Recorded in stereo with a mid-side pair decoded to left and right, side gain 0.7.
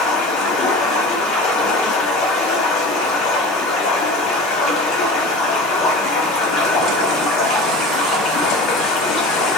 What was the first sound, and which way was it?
Running water, 60° left.